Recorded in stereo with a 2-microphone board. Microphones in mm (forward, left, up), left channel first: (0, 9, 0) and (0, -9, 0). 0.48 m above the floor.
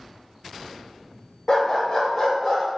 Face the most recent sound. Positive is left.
turn(degrees=15)  # may be behind; listen again after turning